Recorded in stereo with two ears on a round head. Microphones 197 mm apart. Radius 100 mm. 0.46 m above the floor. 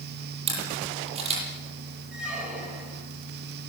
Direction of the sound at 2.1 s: 5° right (ahead or behind).